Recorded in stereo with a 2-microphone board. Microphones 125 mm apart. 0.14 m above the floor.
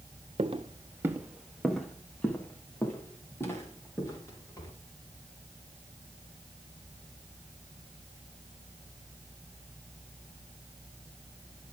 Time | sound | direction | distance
0.4 | footsteps | 55° right (ahead or behind) | 1.2 m